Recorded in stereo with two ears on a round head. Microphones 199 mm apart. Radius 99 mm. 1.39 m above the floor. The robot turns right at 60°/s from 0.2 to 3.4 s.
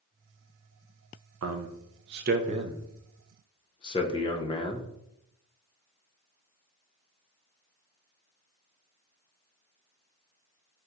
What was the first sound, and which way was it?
A man speaking, 65° right (ahead or behind).